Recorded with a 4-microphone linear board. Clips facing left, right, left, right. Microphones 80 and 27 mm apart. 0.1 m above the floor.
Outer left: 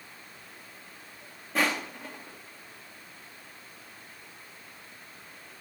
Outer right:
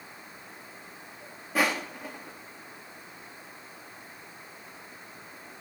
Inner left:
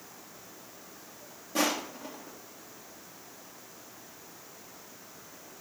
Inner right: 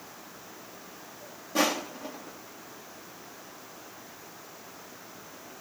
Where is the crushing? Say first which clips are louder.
Outer right 1 dB, inner right 2 dB; 5° right (ahead or behind), 3 m.